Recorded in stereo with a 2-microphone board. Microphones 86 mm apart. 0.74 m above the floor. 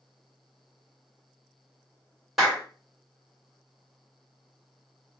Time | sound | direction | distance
2.4 | a clap | 5° right (ahead or behind) | 2.5 m